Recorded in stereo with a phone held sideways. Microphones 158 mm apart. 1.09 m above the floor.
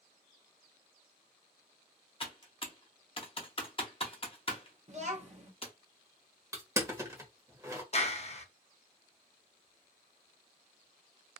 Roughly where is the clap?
Left.